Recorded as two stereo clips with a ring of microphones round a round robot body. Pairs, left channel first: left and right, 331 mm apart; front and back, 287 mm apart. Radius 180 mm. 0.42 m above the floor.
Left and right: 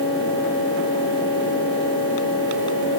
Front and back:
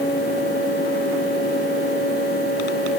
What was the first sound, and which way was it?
Only background noise.